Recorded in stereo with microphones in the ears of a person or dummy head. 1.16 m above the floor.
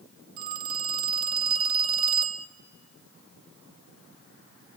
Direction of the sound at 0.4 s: 55° right (ahead or behind).